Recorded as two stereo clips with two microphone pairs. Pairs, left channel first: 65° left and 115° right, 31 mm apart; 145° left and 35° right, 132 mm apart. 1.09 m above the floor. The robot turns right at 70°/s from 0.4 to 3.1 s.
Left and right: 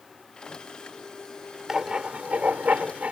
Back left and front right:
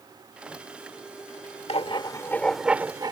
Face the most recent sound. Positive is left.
turn(degrees=-90)